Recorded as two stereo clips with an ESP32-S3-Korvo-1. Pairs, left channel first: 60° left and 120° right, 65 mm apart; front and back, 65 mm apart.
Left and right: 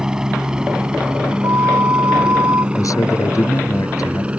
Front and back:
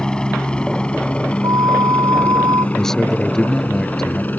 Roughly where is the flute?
Behind.